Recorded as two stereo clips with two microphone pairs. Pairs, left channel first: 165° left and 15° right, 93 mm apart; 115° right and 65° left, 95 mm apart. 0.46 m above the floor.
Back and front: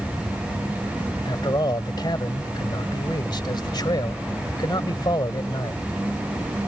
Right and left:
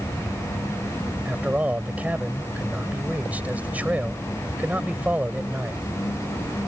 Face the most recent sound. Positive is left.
turn(degrees=135)